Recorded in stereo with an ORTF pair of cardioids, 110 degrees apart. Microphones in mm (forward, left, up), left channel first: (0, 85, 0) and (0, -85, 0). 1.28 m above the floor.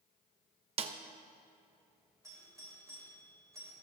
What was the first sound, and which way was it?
A snare drum, 35° right.